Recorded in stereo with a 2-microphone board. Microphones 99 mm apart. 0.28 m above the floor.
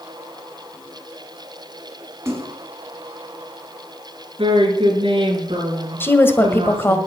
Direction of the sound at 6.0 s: 20° left (ahead or behind).